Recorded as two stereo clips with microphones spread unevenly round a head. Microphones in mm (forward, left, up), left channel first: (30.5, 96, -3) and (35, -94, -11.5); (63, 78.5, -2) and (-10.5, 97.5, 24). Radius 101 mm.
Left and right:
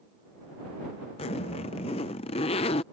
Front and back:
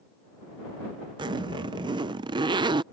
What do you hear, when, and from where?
1.2 s a zipper: 155° left